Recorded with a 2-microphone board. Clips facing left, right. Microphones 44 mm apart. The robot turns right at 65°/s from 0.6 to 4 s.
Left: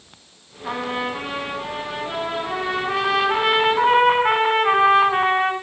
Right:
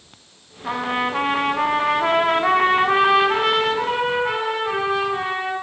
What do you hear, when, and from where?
0.6 s a trumpet: 175° right, 5 m; by 5.5 s 45° left, 5 m